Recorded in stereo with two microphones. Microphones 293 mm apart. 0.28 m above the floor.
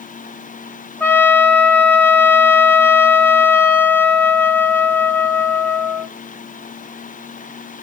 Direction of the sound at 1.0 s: 5° left (ahead or behind).